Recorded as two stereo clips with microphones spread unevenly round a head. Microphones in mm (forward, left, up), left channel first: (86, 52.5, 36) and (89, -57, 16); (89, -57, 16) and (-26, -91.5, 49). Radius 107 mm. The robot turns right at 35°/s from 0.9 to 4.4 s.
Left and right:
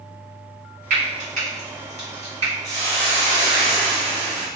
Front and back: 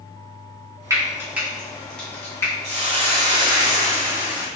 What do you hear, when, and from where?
0.9 s frying: 115° right, 1.5 m; by 2.5 s 60° right, 1.5 m
2.6 s a hiss: 145° right, 1.1 m; by 4.5 s 85° right, 1.1 m